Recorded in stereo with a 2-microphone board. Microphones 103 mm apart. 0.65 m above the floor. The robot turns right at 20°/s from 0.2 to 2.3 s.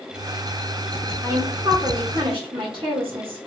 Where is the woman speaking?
40° right (ahead or behind), 1.5 m; by 3.5 s 55° right (ahead or behind), 1.5 m.